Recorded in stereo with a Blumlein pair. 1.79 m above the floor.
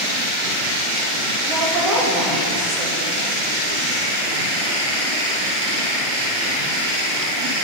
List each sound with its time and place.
1.5 s a woman speaking: 30° right, 2.5 m